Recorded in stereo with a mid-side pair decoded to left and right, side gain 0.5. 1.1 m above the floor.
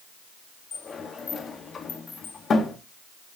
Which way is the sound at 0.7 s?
40° left.